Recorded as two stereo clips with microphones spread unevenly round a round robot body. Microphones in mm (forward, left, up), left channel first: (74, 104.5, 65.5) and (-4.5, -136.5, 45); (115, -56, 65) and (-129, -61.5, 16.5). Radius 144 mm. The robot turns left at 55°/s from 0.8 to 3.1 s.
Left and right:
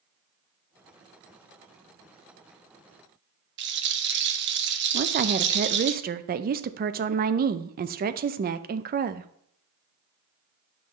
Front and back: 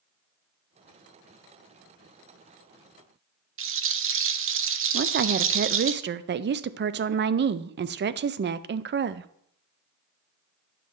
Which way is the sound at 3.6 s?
150° right.